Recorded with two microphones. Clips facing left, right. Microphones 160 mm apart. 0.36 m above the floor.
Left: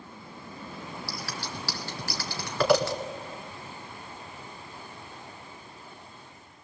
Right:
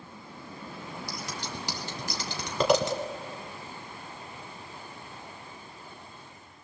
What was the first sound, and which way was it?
Scissors, 20° right (ahead or behind).